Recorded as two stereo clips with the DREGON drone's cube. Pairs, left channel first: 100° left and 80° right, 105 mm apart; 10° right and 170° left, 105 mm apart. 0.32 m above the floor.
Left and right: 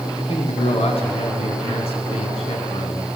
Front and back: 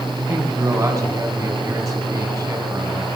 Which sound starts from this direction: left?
A man speaking, at 0.2 s.